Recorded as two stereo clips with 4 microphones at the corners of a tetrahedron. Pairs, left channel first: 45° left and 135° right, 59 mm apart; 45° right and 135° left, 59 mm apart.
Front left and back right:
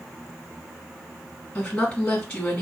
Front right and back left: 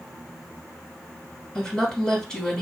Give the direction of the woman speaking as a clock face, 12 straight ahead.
12 o'clock.